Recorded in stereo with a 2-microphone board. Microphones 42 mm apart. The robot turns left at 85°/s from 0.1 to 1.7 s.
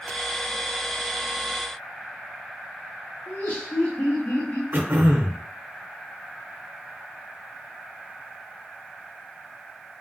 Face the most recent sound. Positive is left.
turn(degrees=-60)  # may be behind; listen again after turning